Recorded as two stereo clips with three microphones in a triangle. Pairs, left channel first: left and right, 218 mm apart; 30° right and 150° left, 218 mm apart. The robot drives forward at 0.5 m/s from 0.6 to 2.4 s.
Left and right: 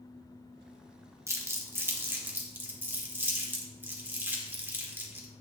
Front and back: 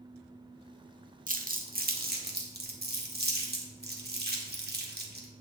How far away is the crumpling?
About 1.2 m.